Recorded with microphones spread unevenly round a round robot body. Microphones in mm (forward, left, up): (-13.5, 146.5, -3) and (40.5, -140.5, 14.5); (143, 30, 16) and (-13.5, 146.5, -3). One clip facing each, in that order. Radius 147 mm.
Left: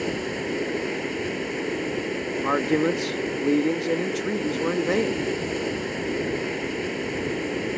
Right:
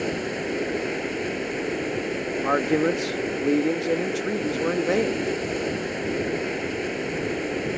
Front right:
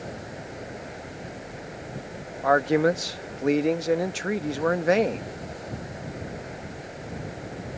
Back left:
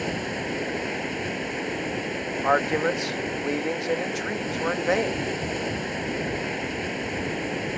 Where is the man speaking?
20° left.